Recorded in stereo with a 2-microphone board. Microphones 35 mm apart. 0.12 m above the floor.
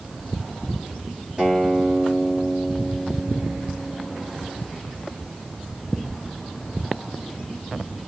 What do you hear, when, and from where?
1.4 s a guitar: 25° right (ahead or behind), 2.5 m